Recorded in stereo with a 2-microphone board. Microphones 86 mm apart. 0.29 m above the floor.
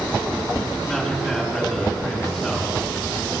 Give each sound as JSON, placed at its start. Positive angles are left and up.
{"t": 0.9, "sound": "a man speaking", "side_deg": 5, "distance_m": 3.5}